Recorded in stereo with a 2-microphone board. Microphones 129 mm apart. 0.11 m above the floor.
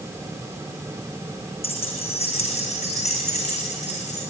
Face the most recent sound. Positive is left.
turn(degrees=60)  # may be behind; listen again after turning